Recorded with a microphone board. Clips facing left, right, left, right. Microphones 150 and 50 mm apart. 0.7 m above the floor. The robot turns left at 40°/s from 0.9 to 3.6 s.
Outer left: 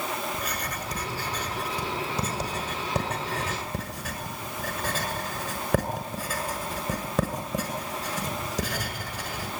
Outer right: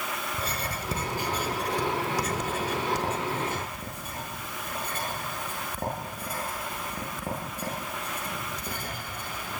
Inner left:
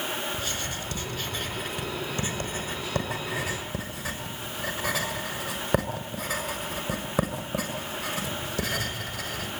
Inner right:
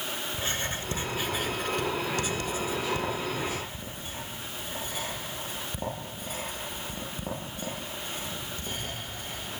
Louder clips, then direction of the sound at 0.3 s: Even, even; 25° right (ahead or behind).